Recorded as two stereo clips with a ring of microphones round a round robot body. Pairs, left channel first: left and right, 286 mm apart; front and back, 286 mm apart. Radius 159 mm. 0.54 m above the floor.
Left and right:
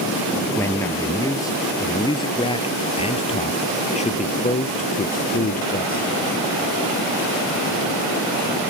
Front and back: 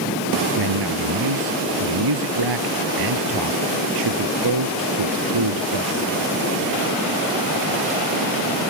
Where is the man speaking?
170° left; by 6.2 s 150° left.